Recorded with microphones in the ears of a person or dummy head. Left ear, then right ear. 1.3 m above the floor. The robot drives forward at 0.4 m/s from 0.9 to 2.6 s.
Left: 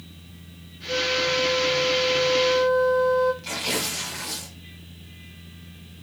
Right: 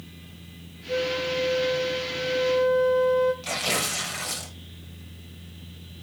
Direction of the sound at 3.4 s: 25° right (ahead or behind).